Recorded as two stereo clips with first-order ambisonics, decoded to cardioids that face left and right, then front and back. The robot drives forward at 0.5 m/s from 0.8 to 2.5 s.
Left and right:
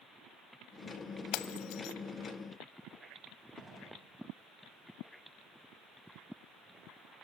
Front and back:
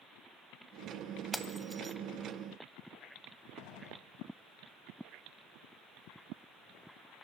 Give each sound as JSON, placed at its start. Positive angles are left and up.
{"t": 1.3, "sound": "breaking glass", "azimuth_deg": 85, "distance_m": 1.2}
{"t": 3.6, "sound": "a gunshot", "azimuth_deg": -10, "distance_m": 3.5}